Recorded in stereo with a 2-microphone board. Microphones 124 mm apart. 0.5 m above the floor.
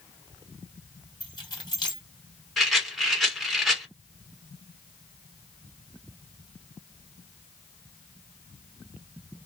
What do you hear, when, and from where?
1.2 s keys jangling: 35° left (ahead or behind), 1.4 m
2.6 s a rattle: centre (ahead or behind), 1.0 m